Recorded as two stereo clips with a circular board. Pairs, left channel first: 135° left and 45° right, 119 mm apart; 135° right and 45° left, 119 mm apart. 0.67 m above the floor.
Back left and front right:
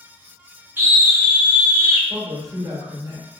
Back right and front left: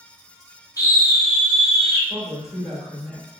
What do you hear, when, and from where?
0.8 s a scream: 105° right, 0.6 m
2.1 s a woman speaking: 25° right, 1.2 m